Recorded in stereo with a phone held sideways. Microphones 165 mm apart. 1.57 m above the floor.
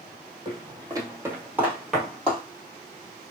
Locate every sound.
0.5 s footsteps: 30° right (ahead or behind), 2 m; by 2.4 s 10° left (ahead or behind), 1.7 m